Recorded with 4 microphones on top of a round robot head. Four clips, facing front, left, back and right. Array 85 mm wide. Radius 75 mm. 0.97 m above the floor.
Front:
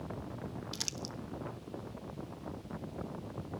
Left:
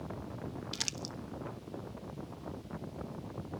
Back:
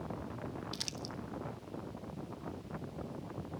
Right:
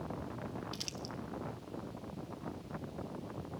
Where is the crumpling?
75° left, 1.2 m.